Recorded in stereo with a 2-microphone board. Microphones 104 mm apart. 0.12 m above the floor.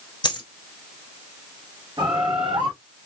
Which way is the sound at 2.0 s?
45° right (ahead or behind).